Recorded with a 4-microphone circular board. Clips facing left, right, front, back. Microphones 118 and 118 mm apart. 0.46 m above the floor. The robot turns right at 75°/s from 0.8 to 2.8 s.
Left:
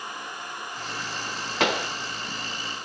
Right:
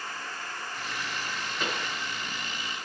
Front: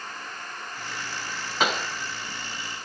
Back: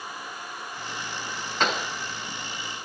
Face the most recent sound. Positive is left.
turn(degrees=170)